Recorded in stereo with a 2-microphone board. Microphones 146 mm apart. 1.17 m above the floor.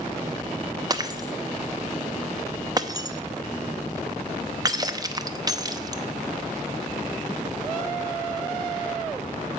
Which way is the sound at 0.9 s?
25° right (ahead or behind).